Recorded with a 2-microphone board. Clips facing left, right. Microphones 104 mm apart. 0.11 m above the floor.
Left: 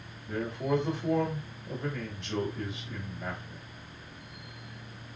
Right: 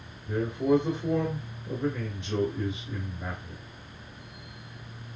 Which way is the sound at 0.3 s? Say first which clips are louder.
Right 6 dB; 10° right (ahead or behind).